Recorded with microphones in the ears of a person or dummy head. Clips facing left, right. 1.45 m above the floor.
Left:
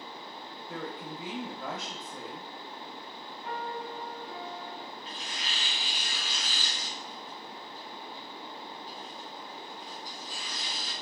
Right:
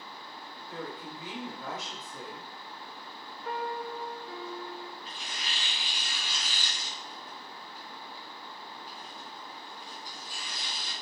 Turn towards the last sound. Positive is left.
turn(degrees=-40)  # may be behind; listen again after turning